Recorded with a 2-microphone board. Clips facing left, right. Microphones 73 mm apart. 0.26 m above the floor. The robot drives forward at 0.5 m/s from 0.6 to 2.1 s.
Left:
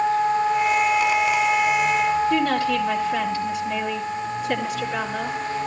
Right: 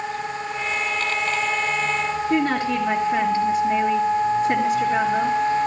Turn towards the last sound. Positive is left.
turn(degrees=-35)  # may be behind; listen again after turning